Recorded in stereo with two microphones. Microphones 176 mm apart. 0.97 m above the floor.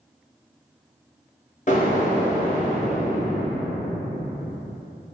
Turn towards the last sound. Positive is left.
turn(degrees=45)  # may be behind; listen again after turning